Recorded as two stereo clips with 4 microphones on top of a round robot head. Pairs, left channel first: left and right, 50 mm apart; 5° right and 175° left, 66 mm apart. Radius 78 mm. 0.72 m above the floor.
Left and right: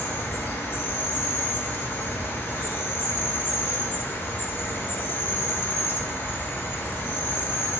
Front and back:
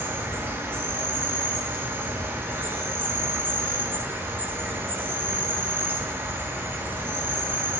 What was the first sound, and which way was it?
An insect, 125° left.